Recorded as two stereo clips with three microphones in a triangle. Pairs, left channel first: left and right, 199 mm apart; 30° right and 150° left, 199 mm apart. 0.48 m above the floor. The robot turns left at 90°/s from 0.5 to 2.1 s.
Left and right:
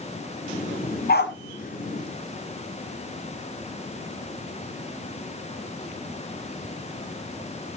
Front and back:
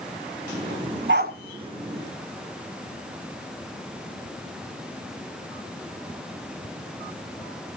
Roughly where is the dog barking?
Behind left.